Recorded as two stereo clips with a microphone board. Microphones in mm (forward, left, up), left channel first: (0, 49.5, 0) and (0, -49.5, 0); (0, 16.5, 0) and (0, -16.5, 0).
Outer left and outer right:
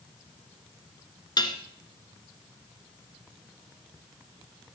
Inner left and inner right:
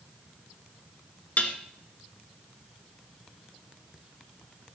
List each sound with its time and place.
1.4 s dishes clattering: 45° left (ahead or behind), 1.4 m